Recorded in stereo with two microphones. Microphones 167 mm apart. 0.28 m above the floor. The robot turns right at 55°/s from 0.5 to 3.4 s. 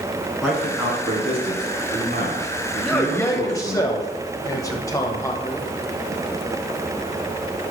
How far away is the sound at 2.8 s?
About 1.0 m.